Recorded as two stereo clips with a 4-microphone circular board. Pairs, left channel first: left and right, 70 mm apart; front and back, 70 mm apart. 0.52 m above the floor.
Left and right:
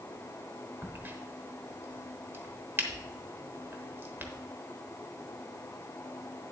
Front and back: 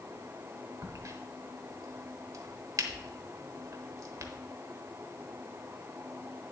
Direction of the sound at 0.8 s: 145° right.